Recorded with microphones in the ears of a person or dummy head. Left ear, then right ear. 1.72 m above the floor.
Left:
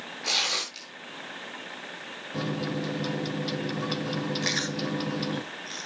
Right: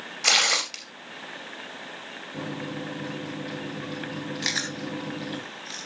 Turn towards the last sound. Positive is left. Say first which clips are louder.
# right 3 dB
turn(degrees=-20)  # may be behind; listen again after turning